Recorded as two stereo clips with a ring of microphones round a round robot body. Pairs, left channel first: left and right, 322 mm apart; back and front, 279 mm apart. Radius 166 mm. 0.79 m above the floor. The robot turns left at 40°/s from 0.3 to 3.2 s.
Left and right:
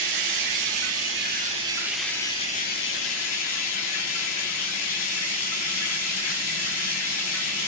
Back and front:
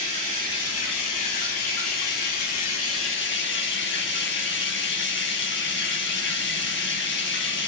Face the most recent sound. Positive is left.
turn(degrees=130)